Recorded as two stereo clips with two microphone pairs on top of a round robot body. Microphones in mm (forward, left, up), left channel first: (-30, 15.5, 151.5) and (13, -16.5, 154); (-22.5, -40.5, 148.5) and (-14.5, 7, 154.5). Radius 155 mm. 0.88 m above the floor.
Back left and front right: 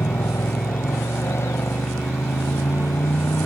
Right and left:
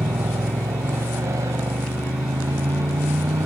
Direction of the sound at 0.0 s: 105° left.